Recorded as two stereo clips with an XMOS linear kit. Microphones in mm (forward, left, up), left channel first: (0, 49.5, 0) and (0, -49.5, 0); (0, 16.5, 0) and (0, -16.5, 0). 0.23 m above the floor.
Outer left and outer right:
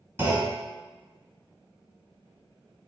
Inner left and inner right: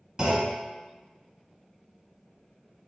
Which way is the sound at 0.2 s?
25° right (ahead or behind).